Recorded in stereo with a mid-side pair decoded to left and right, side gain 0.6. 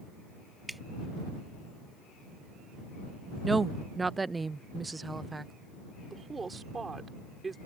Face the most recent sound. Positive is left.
turn(degrees=-25)